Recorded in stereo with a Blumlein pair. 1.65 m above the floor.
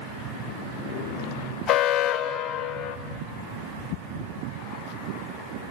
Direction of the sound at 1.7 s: 25° left.